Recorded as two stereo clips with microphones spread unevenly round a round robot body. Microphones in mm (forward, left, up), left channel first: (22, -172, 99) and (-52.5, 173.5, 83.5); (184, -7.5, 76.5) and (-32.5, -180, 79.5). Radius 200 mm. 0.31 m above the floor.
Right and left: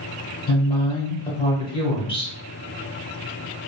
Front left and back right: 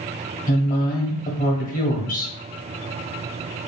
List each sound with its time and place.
0.5 s a woman speaking: 5° right, 1.3 m